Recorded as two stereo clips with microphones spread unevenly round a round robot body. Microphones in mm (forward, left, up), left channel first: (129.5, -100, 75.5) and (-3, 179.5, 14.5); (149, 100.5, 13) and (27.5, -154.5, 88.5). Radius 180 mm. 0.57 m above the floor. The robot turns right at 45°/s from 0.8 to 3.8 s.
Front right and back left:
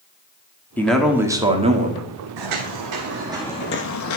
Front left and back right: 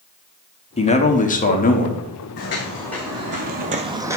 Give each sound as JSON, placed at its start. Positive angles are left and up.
{"t": 0.8, "sound": "a man speaking", "azimuth_deg": 30, "distance_m": 1.3}
{"t": 2.4, "sound": "footsteps", "azimuth_deg": 120, "distance_m": 1.6}